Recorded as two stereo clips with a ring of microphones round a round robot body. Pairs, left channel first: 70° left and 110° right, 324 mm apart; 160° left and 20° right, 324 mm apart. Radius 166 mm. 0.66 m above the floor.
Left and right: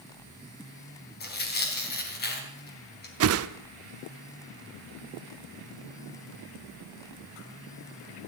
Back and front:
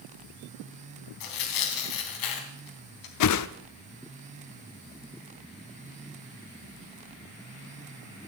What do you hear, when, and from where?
1.2 s tearing paper: 130° left, 3.5 m
3.2 s a whoosh: 160° right, 0.7 m